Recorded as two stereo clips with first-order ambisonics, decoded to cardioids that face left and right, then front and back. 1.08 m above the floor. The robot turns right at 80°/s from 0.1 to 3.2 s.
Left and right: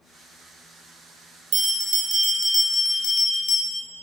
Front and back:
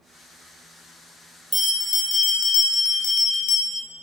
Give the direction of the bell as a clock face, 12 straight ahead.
3 o'clock.